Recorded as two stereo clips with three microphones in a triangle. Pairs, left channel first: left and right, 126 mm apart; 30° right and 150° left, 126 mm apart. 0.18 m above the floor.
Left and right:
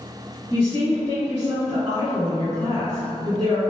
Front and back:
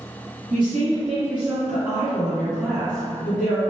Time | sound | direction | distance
0.5 | a woman speaking | 125° right | 1.8 m